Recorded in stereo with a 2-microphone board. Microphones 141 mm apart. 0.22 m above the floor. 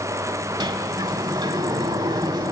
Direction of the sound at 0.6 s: 30° right (ahead or behind).